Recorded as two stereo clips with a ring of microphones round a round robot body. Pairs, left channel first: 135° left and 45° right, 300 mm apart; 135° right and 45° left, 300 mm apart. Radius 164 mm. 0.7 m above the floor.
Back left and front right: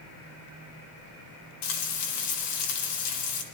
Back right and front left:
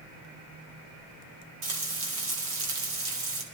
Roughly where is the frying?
Left.